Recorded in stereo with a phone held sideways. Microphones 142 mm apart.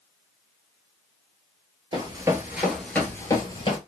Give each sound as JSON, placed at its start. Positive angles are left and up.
{"t": 1.9, "sound": "running footsteps", "side_deg": -30, "distance_m": 0.9}